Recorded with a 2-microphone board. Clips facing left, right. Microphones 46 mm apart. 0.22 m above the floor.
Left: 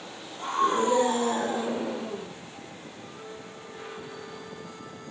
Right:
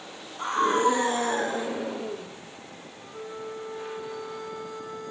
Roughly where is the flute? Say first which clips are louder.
Right 10 dB; right.